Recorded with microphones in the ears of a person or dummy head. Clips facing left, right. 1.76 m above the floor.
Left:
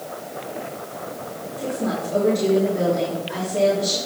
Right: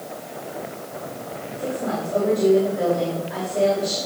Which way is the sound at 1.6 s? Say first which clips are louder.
Left 1 dB; 80° left.